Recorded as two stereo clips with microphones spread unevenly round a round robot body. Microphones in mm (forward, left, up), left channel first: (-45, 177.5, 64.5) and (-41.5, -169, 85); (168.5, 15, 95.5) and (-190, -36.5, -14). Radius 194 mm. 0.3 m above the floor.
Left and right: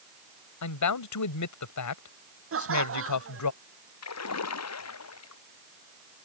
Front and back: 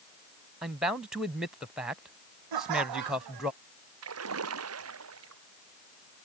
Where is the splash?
135° left.